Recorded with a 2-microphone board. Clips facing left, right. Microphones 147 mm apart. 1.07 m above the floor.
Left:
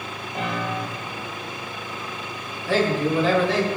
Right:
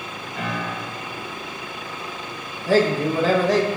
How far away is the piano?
About 1.4 m.